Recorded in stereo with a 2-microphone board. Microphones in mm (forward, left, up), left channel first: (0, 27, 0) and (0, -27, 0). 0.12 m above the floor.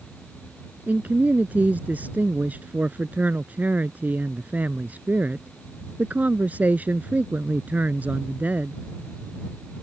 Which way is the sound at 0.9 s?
30° right (ahead or behind).